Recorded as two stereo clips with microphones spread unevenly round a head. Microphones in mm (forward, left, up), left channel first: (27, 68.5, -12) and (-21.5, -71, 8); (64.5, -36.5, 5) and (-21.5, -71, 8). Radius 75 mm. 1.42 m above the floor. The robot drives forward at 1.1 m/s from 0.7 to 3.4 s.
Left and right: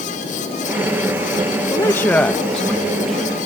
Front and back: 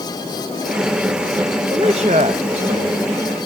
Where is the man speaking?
140° left; by 3.3 s 165° left.